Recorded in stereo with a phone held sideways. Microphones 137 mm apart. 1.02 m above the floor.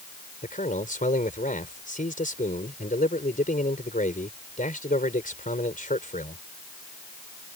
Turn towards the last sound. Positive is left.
turn(degrees=80)